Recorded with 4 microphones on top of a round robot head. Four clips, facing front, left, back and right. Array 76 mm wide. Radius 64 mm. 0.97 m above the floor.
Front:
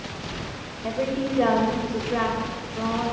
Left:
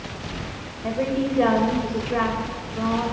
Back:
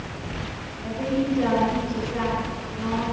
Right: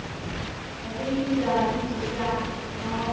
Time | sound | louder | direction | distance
0.8 | a woman speaking | left 3 dB, back 1 dB | 55° left | 5.5 m